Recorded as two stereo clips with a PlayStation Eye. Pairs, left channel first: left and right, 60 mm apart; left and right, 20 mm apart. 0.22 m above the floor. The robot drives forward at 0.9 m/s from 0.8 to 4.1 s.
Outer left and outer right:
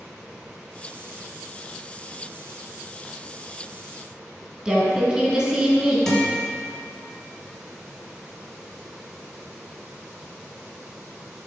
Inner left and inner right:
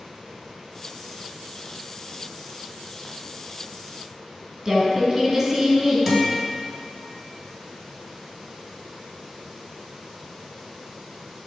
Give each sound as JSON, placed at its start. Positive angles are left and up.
{"t": 4.7, "sound": "a woman speaking", "side_deg": -10, "distance_m": 3.0}
{"t": 6.1, "sound": "a guitar", "side_deg": 5, "distance_m": 1.9}